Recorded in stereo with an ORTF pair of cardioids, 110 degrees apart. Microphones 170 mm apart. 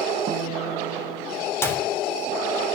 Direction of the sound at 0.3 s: 50° right.